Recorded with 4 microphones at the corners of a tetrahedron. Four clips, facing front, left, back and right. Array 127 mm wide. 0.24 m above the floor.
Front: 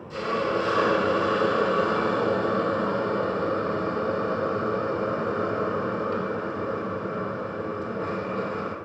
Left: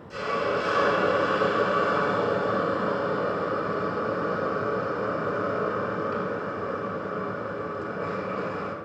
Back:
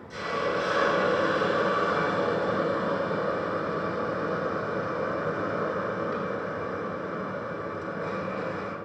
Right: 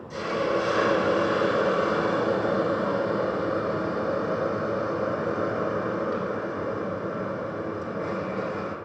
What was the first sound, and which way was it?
A hiss, 50° right.